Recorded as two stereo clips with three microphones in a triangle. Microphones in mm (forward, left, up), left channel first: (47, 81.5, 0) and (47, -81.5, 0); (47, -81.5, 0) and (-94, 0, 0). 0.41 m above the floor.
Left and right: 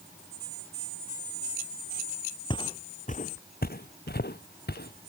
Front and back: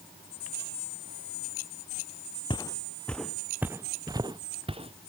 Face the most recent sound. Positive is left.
turn(degrees=100)